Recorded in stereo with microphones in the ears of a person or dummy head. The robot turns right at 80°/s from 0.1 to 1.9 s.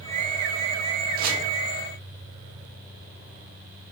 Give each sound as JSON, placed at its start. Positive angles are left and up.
{"t": 1.2, "sound": "chopping", "side_deg": -50, "distance_m": 0.5}